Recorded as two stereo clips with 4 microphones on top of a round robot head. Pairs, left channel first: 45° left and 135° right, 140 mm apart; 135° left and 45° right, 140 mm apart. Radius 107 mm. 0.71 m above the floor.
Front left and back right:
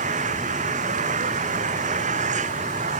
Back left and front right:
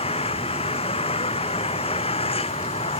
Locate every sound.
0.0 s an engine running: 175° right